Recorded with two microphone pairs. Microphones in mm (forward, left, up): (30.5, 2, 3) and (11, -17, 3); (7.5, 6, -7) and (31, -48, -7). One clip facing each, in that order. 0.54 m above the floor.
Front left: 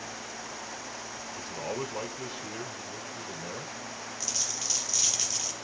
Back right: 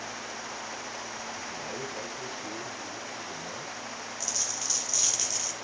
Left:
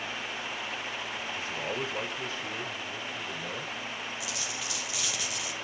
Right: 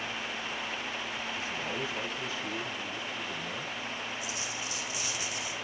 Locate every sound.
1.4 s a man speaking: 70° left, 2.5 m
4.2 s a dropped coin: 120° left, 2.5 m